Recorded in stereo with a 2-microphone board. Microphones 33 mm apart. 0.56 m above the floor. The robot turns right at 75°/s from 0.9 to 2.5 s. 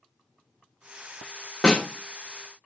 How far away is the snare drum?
About 0.9 m.